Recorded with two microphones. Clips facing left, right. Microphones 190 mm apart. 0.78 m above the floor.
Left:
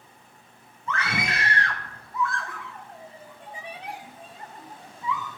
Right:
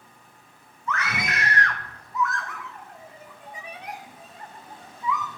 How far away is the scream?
About 0.6 m.